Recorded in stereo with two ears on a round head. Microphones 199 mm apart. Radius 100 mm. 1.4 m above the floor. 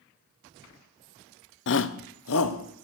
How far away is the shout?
About 0.6 m.